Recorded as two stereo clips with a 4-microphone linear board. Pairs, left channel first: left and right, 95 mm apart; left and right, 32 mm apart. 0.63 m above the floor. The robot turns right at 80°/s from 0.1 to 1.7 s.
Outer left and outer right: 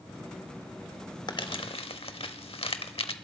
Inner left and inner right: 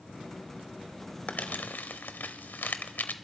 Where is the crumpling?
50° left (ahead or behind), 0.8 m; by 3.1 s 80° left, 0.8 m.